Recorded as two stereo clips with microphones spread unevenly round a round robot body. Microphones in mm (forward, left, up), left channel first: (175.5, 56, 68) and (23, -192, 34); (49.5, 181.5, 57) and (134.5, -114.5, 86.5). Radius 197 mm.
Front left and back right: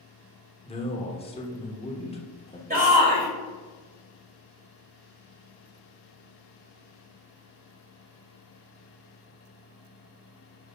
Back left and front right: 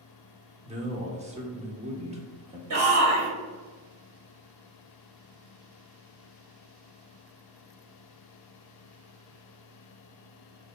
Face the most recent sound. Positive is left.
turn(degrees=-90)